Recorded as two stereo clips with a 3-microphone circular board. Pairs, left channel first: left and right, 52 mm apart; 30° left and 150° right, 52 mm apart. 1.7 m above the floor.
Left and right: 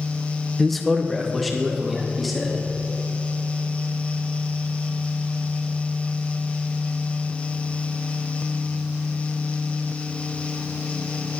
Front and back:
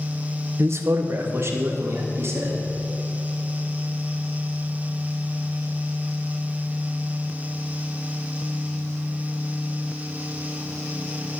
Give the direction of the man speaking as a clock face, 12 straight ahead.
6 o'clock.